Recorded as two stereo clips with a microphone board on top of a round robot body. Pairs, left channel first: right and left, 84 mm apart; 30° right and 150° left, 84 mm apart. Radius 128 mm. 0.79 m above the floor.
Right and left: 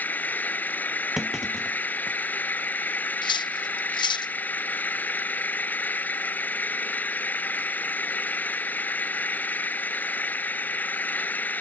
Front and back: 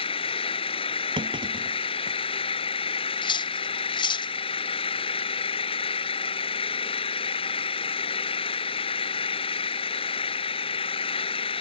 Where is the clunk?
175° left.